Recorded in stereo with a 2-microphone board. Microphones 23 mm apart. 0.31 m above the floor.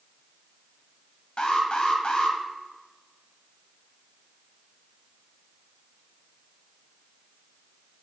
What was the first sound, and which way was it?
An alarm, 50° left (ahead or behind).